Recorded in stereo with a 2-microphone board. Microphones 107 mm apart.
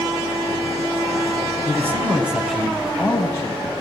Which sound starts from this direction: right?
A man speaking, at 1.6 s.